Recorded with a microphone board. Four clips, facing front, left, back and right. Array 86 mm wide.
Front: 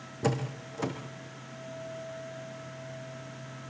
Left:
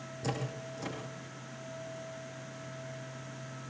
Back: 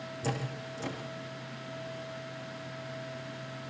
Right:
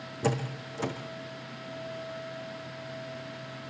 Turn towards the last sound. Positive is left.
turn(degrees=-35)